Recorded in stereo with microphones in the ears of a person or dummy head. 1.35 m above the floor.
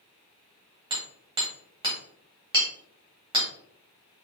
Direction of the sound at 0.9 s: 25° right (ahead or behind).